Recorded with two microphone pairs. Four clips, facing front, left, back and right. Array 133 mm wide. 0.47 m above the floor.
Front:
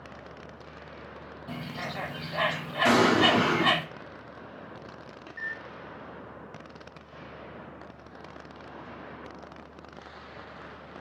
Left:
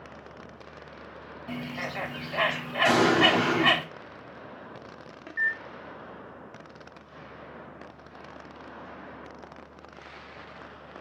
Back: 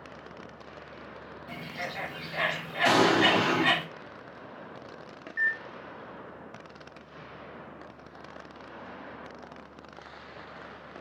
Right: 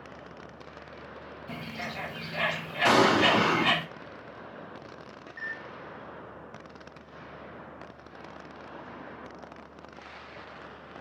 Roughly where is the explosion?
Right.